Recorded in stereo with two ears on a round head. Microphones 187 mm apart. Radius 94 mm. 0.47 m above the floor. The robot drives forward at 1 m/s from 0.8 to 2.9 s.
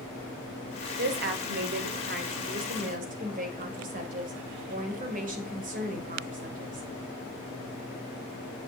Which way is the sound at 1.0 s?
50° right (ahead or behind).